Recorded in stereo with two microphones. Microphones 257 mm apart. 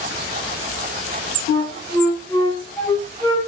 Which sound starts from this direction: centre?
A flute, at 1.5 s.